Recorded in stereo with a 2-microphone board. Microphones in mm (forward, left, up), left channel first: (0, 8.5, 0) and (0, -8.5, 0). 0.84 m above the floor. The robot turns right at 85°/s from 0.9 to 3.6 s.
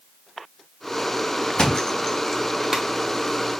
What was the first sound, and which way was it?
A thud, 55° left (ahead or behind).